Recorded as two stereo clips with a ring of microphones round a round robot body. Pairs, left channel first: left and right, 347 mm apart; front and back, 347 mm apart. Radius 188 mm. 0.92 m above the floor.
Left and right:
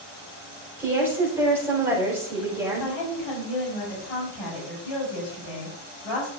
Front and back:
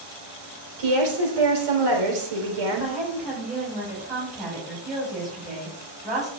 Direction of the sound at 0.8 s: 175° right.